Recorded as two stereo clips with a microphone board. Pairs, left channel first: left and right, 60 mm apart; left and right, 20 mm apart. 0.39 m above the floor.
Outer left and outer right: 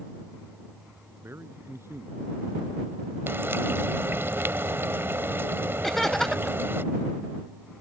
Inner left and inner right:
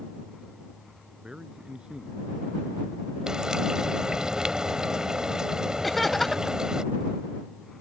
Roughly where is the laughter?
Centre.